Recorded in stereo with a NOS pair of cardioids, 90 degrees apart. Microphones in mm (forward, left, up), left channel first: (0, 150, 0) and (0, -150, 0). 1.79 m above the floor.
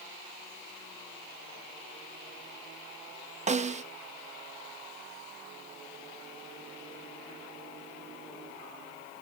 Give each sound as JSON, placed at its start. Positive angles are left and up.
{"t": 3.5, "sound": "a snare drum", "azimuth_deg": -25, "distance_m": 0.9}